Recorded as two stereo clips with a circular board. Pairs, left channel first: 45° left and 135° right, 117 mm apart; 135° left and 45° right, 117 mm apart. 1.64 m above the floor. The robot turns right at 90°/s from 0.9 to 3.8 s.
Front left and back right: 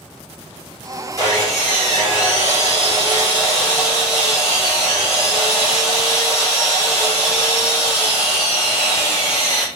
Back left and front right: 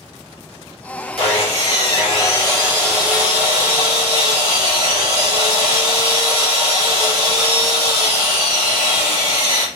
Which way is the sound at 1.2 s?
105° left.